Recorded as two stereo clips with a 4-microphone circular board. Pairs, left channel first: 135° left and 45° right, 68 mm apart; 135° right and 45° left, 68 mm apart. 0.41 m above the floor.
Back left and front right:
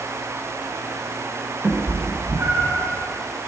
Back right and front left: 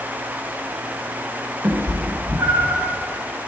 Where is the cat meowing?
10° left, 0.7 m; by 2.9 s 5° right, 1.6 m.